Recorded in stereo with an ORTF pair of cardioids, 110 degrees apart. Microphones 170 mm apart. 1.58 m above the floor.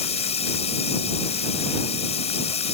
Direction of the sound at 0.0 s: 40° left.